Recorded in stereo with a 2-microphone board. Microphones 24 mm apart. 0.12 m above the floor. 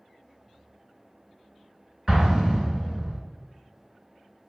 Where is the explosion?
20° right (ahead or behind), 0.8 m.